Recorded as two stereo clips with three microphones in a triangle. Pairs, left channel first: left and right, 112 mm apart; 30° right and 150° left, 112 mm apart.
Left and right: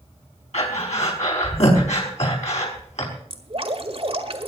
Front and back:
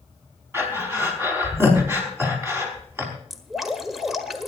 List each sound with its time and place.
0.5 s breathing: 80° left, 4.5 m
3.3 s dripping: 125° right, 1.6 m